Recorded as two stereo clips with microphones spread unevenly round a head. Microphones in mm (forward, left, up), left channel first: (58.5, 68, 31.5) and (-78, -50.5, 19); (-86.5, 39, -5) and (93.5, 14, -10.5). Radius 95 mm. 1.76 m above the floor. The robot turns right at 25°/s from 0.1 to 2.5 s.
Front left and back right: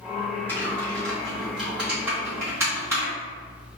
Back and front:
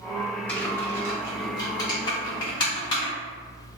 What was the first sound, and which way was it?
Typing on a keyboard, 100° left.